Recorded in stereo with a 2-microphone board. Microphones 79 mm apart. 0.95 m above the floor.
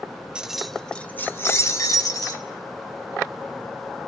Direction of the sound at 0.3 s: 10° right (ahead or behind).